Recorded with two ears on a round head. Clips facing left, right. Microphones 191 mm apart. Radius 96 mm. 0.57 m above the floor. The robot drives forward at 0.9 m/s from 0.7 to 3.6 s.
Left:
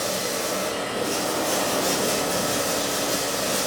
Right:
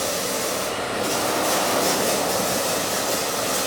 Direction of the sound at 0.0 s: 70° right (ahead or behind).